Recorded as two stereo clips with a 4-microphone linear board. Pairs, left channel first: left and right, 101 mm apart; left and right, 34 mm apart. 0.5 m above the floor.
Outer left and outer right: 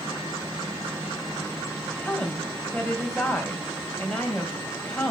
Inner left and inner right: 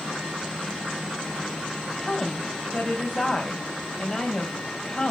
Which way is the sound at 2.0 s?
10° left (ahead or behind).